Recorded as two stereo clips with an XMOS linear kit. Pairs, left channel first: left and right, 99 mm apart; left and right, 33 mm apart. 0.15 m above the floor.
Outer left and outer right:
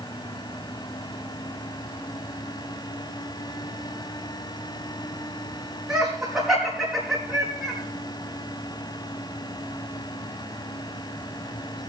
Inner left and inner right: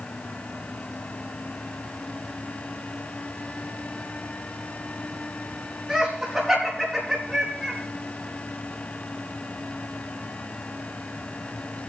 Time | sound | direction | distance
5.9 | laughter | 10° right (ahead or behind) | 5 m